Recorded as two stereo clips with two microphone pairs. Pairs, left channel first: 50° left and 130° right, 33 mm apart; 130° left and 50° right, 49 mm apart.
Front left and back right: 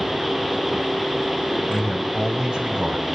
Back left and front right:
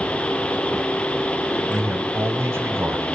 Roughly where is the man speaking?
Right.